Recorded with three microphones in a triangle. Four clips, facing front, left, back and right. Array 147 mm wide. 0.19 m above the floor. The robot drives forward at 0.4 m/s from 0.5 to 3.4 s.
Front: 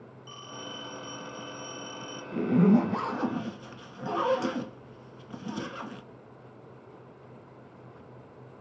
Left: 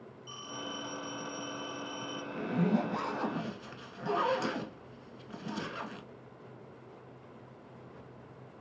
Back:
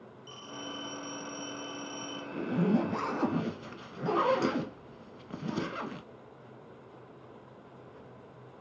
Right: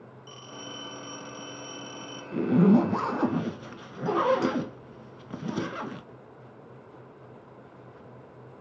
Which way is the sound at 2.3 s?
65° right.